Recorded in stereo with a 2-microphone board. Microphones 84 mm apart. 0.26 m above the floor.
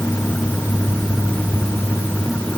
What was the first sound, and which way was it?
Only background noise.